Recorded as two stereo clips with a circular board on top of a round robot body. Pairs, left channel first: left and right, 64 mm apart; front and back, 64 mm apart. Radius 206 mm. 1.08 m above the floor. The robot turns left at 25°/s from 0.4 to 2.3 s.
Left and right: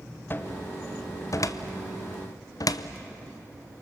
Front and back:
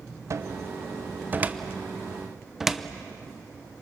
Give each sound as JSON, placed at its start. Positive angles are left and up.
{"t": 0.3, "sound": "a cupboard door", "azimuth_deg": 145, "distance_m": 0.9}